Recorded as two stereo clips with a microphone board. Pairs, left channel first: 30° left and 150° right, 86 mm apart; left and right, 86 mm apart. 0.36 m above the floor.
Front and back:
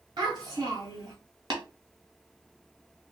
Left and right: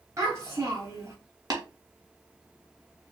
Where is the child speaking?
140° right, 1.7 m.